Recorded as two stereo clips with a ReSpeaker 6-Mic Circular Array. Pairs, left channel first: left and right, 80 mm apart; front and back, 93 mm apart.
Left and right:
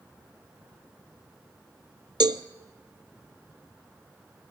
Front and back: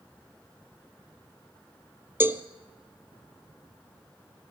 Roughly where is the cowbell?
Behind right.